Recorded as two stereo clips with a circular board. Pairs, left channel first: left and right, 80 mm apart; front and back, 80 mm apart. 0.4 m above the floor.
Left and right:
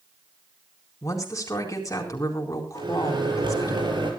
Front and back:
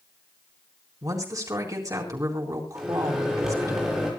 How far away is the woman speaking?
About 4 m.